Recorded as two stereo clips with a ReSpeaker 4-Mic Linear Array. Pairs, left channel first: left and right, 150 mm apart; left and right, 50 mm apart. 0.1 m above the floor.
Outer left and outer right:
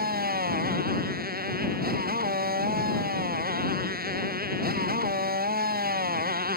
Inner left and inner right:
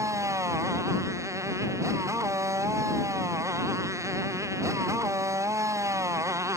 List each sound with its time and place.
0.0 s a motorcycle: 85° right